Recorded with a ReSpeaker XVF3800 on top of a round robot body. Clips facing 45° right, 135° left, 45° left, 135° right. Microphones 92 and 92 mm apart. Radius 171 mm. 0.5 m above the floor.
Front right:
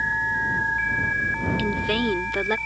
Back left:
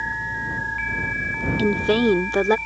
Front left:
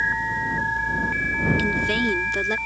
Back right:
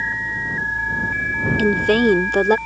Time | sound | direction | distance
1.6 | a woman speaking | 165° right | ?